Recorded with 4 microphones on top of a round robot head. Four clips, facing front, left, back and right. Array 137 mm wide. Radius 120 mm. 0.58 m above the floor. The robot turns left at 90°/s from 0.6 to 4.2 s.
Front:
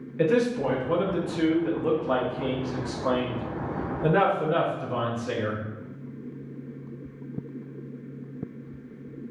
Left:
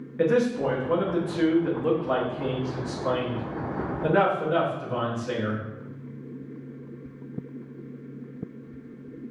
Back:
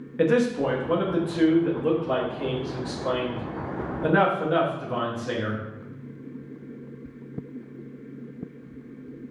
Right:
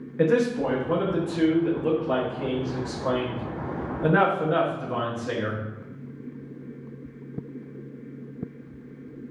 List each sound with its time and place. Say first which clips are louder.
0.2 s a man speaking: right 1 dB, back 1 dB; 170° right, 0.8 m; by 5.6 s 135° right, 0.8 m